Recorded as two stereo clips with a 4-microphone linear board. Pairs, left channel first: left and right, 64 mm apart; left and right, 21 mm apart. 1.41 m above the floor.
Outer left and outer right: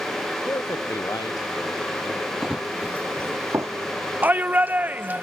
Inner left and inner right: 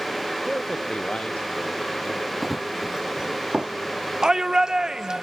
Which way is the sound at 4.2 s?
30° right (ahead or behind).